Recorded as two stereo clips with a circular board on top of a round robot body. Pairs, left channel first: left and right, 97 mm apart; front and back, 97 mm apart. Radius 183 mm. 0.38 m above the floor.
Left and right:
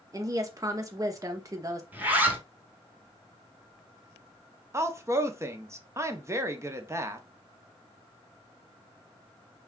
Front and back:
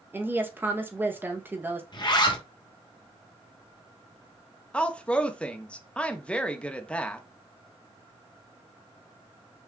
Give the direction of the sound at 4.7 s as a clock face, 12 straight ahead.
2 o'clock.